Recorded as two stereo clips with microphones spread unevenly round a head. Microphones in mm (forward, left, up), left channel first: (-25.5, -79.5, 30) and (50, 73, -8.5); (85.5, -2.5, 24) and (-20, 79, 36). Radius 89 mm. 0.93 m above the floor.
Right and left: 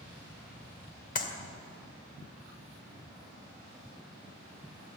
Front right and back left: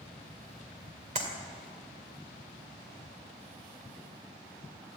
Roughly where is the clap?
Behind.